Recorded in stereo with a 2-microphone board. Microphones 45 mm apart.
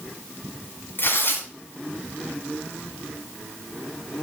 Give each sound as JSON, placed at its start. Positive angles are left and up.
{"t": 1.0, "sound": "tearing paper", "side_deg": 50, "distance_m": 1.6}